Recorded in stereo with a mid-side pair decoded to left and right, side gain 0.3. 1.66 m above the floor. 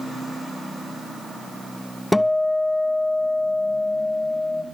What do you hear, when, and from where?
2.1 s a guitar: 20° left, 0.6 m